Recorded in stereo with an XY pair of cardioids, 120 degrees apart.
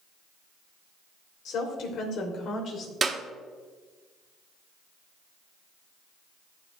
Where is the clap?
30° right, 1.3 m.